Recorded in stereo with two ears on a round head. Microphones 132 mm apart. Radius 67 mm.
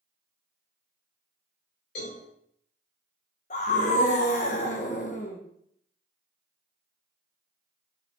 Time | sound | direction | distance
1.9 | a cowbell | 75° left (ahead or behind) | 4 m
3.5 | a scream | 50° left (ahead or behind) | 1.4 m